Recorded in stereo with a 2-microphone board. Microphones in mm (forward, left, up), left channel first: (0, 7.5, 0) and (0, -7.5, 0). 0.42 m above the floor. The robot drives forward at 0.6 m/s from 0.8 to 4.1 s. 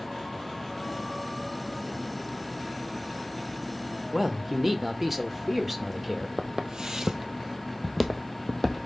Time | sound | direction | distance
4.1 | a man speaking | 15° right (ahead or behind) | 0.9 m
6.4 | footsteps | 60° right (ahead or behind) | 1.0 m